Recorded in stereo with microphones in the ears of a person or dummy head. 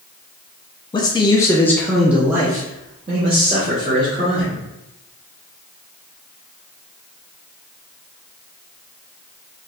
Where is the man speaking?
20° left (ahead or behind), 0.9 m; by 4.6 s 30° right (ahead or behind), 2 m.